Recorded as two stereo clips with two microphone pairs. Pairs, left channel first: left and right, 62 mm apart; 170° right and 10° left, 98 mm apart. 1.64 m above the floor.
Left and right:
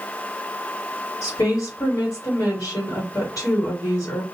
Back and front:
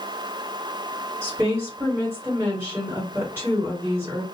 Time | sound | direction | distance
1.2 | a woman speaking | 75° left | 1.4 m